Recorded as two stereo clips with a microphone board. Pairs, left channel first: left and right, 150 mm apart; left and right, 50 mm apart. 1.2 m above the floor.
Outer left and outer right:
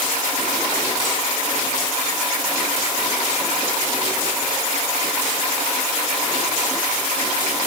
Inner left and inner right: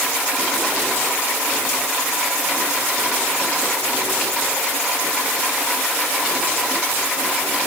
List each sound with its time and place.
Only background noise.